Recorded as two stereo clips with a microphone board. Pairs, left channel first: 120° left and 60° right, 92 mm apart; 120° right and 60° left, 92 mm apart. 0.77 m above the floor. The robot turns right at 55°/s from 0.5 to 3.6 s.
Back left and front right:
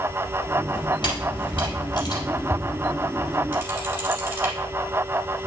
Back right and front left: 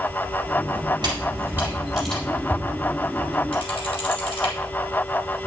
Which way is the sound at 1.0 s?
95° left.